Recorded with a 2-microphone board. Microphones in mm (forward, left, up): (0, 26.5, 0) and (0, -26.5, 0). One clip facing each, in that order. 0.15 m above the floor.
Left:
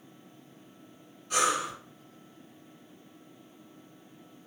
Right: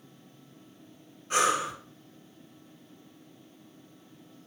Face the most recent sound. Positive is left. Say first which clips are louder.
# right 2 dB
turn(degrees=-35)  # may be behind; listen again after turning